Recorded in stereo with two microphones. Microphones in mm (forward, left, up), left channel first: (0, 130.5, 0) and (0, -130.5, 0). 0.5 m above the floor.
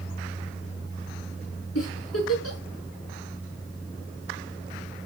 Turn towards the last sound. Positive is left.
turn(degrees=70)  # may be behind; listen again after turning